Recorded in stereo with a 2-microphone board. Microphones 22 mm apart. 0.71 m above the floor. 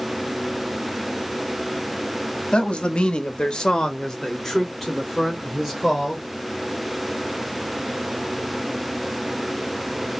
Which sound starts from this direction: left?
A man speaking, at 2.5 s.